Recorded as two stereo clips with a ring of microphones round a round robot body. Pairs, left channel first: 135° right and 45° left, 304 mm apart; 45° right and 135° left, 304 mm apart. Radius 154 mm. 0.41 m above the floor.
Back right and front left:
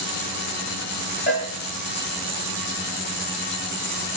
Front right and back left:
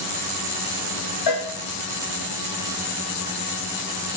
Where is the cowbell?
70° right, 6 m.